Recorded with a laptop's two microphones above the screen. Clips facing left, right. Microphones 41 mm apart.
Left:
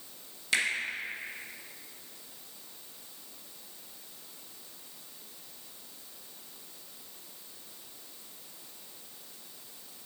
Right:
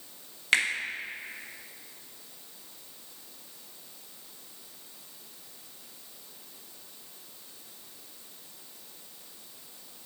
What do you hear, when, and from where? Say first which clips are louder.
0.5 s a finger snap: right 4 dB; 45° right (ahead or behind), 1.2 m